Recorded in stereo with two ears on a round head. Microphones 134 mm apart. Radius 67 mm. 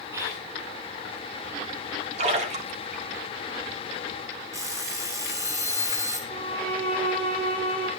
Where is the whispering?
20° right (ahead or behind), 5.5 m.